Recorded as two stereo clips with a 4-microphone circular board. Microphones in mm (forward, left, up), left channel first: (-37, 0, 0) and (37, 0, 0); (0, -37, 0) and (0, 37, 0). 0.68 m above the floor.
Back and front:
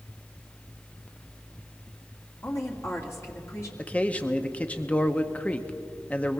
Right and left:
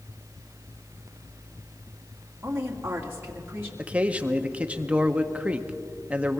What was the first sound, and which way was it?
A woman speaking, 145° left.